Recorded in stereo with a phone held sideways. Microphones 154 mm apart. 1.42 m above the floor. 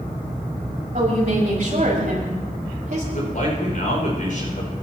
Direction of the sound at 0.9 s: 55° right (ahead or behind).